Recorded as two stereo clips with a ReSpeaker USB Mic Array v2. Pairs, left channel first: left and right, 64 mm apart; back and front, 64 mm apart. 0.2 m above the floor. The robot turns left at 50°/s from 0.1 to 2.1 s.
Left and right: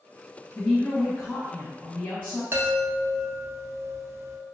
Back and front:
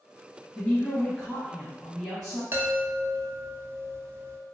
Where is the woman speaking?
150° left, 1.1 m; by 2.4 s 75° left, 1.1 m.